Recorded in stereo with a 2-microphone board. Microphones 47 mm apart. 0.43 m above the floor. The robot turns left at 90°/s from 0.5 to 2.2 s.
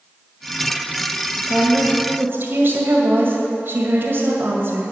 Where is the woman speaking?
5° left, 2 m; by 4.9 s 60° right, 2 m.